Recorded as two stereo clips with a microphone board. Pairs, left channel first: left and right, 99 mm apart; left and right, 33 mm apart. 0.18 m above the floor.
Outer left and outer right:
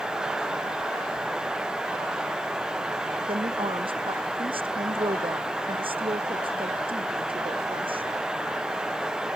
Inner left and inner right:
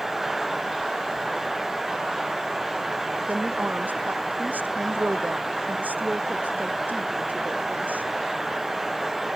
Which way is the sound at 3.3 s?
70° right (ahead or behind).